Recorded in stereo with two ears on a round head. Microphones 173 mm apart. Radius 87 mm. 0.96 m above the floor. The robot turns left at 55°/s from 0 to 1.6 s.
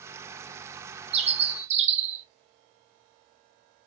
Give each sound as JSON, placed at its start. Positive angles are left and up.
{"t": 1.1, "sound": "a bird", "side_deg": -30, "distance_m": 0.7}